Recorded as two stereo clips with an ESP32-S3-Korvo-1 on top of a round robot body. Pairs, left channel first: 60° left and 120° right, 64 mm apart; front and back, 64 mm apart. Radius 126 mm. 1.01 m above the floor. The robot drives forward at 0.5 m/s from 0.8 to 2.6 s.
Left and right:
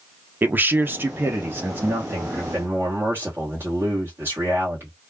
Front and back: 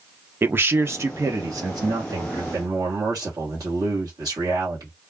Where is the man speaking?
155° right, 0.6 m; by 4.9 s 175° right, 1.3 m.